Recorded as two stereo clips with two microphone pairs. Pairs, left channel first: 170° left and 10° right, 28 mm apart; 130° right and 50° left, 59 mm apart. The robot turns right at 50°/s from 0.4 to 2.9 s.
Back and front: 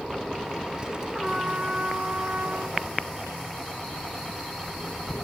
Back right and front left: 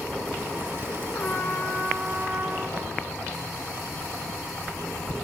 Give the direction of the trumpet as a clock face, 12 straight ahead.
3 o'clock.